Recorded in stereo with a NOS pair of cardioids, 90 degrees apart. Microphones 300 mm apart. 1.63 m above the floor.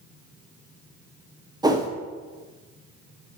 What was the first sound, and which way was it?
A whoosh, 15° right.